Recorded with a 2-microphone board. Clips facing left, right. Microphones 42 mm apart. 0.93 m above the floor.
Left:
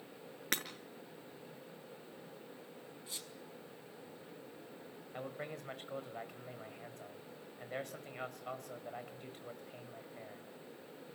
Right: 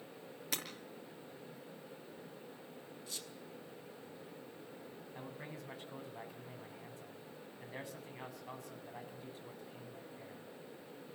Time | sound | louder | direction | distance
0.5 | breaking glass | left 4 dB | 60° left (ahead or behind) | 5 m
3.1 | a squeak | right 1 dB | 25° left (ahead or behind) | 5.5 m
5.1 | a man speaking | left 6 dB | 60° left (ahead or behind) | 4.5 m